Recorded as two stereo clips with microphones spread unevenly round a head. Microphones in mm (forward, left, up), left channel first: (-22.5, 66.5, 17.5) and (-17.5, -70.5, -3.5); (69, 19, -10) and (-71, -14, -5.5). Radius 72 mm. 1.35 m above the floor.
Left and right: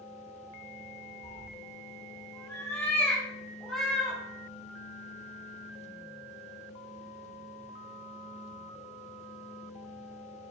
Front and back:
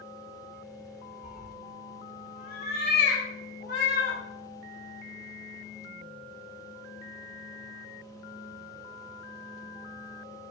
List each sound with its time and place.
1.2 s a cat meowing: 65° left, 1.5 m; by 4.2 s 5° left, 3 m